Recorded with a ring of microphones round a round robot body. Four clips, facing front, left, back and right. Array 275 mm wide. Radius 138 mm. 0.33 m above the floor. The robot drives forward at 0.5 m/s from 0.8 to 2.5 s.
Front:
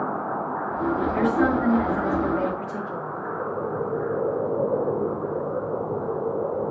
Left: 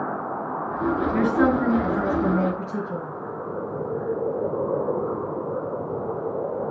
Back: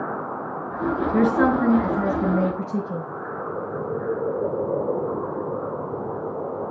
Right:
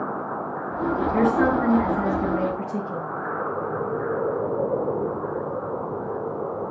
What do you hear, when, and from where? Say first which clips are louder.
1.1 s a woman speaking: right 1 dB, back 4 dB; 150° left, 4.5 m